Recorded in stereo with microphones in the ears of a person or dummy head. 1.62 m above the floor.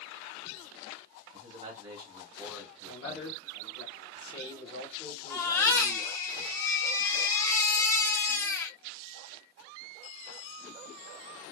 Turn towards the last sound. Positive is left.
turn(degrees=20)  # may be behind; listen again after turning